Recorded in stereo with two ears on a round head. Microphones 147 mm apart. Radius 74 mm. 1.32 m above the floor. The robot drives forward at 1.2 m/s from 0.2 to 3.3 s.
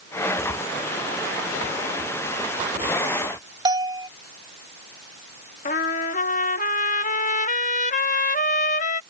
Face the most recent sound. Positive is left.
turn(degrees=50)  # may be behind; listen again after turning